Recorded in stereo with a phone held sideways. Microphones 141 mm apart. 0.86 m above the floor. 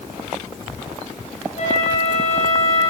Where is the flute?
50° left (ahead or behind), 9 m.